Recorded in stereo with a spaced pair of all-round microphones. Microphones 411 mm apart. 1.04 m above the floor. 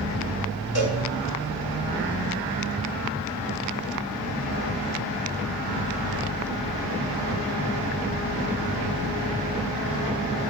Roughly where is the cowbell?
Left.